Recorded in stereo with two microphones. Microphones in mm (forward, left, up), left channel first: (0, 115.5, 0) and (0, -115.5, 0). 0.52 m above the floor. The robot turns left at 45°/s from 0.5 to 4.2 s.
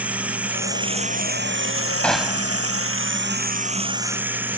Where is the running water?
5° right; by 4.6 s 170° right.